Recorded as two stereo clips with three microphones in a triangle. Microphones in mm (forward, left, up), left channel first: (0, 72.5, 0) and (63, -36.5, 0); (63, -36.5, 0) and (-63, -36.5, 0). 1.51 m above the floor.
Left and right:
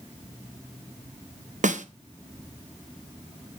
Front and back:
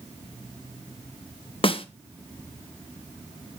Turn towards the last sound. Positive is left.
turn(degrees=-45)